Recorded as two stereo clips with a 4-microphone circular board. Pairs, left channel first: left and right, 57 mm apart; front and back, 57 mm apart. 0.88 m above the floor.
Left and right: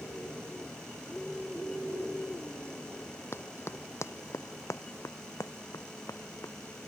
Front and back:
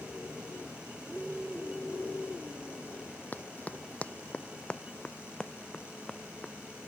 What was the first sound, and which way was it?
Running footsteps, 55° left.